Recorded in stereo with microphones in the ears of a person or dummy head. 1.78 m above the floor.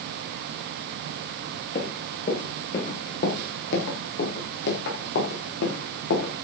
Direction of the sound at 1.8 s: 45° left (ahead or behind).